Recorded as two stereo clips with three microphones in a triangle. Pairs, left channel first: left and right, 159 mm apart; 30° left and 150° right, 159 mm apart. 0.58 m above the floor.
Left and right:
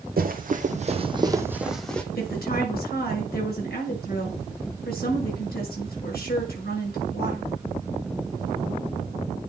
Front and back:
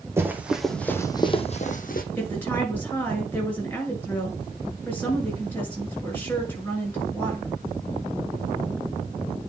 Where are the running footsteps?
75° right, 1.8 m; by 2.0 s 10° left, 1.6 m.